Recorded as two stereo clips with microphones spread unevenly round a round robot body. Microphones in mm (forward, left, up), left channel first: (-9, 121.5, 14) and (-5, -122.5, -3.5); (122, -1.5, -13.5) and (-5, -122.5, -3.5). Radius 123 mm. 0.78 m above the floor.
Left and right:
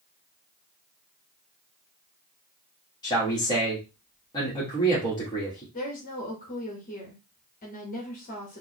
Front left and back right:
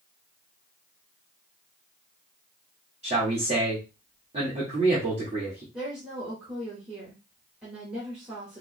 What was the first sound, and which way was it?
A man speaking, 165° left.